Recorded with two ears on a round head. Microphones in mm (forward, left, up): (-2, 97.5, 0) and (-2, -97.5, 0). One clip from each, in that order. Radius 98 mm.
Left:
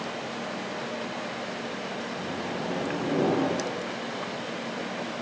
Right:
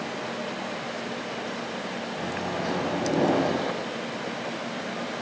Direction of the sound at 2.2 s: 80° right.